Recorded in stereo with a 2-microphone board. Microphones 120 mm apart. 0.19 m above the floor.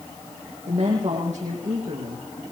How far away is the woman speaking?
About 8.5 m.